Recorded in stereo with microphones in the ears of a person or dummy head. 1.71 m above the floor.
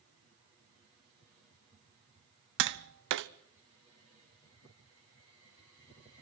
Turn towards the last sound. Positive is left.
turn(degrees=-60)  # may be behind; listen again after turning